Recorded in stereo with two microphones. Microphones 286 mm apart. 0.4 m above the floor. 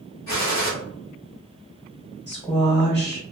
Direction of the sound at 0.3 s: 60° left (ahead or behind).